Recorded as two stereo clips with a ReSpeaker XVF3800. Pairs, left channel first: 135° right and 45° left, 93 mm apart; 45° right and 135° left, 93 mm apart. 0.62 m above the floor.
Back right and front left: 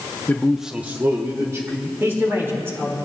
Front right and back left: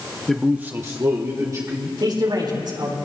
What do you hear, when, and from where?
0.3 s a man speaking: 125° right, 0.7 m; by 1.9 s 90° left, 2.0 m
2.0 s a man speaking: 105° left, 4 m